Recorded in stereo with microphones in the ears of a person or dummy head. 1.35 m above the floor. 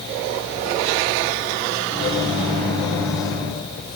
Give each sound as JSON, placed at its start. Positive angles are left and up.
{"t": 1.9, "sound": "a microwave", "side_deg": 25, "distance_m": 9.0}